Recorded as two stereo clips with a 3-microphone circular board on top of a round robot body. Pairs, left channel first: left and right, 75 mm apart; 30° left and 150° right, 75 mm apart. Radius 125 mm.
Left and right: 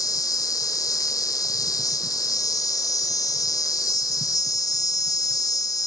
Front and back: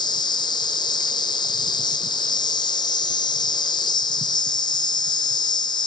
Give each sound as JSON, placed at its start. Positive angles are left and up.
{"t": 0.0, "sound": "an insect", "azimuth_deg": 50, "distance_m": 1.0}